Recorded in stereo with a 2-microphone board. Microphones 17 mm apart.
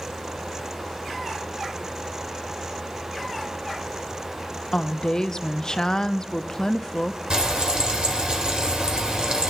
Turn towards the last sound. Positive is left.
turn(degrees=-60)  # may be behind; listen again after turning